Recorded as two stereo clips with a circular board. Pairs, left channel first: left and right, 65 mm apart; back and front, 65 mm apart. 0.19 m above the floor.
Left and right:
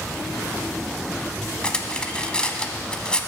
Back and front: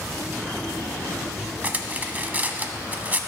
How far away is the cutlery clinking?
About 0.7 m.